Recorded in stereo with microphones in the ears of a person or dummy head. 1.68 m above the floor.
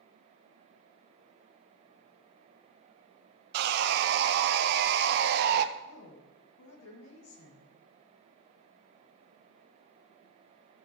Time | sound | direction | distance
3.5 | sawing | 60° right (ahead or behind) | 0.6 m
5.8 | a woman speaking | 80° left | 2.5 m